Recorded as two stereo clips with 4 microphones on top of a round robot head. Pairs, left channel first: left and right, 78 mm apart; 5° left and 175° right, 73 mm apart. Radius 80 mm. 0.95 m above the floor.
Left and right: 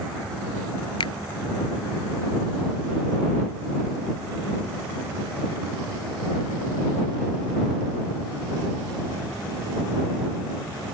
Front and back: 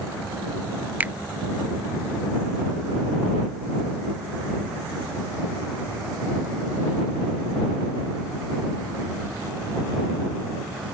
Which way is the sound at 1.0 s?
115° left.